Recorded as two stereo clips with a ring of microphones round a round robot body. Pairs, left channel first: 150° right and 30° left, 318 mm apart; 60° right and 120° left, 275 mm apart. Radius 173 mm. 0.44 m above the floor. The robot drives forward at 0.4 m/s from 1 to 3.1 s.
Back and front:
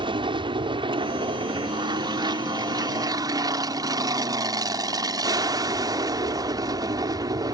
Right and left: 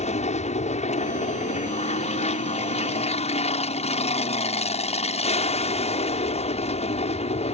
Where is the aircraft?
30° right.